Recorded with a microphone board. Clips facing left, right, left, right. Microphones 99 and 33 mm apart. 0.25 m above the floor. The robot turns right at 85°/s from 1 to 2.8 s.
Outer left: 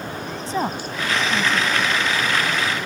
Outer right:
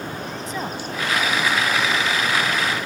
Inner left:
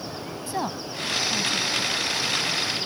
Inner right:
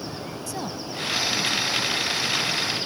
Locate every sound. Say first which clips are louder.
0.5 s a woman speaking: outer left 7 dB, inner left 5 dB; 30° left (ahead or behind); by 1.9 s 40° left (ahead or behind)